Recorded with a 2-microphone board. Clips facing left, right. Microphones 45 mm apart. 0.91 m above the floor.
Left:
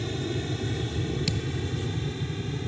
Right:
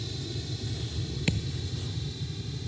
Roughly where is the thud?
Right.